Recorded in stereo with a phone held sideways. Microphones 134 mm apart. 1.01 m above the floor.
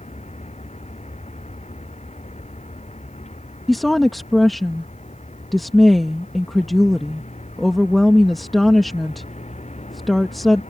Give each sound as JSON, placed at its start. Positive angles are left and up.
{"t": 0.0, "sound": "a vehicle", "side_deg": 55}
{"t": 3.7, "sound": "a woman speaking", "side_deg": 0}